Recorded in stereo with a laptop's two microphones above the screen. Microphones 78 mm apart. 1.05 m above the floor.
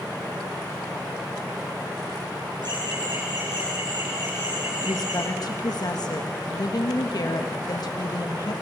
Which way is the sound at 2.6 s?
70° right (ahead or behind).